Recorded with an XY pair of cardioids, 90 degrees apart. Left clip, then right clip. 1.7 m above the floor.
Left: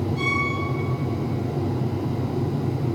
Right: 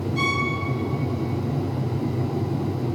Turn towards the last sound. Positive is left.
turn(degrees=-60)